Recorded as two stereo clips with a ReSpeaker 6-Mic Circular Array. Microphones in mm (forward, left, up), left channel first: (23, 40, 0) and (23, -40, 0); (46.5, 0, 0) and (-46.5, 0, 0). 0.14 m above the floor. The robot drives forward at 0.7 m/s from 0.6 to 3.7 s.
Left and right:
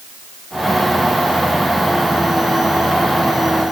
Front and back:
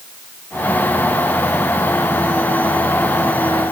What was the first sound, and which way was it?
Only background noise.